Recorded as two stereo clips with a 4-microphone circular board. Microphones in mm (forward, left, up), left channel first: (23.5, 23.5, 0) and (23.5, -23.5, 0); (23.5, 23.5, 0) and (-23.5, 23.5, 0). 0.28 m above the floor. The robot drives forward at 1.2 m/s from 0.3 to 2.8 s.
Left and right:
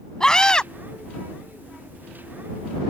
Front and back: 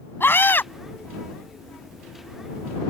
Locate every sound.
0.2 s a scream: 20° left; by 0.7 s 25° left